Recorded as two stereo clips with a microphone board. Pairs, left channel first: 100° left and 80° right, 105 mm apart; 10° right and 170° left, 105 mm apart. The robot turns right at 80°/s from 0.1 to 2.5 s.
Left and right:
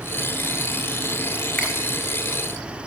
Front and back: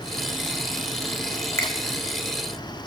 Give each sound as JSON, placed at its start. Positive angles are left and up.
{"t": 1.6, "sound": "a finger snap", "azimuth_deg": 30, "distance_m": 1.2}